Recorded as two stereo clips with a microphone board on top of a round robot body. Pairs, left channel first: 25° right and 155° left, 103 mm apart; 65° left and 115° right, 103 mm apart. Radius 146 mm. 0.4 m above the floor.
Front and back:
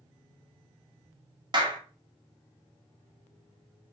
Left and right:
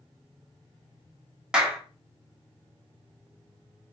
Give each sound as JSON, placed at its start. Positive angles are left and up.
{"t": 1.5, "sound": "a clap", "azimuth_deg": 170, "distance_m": 1.1}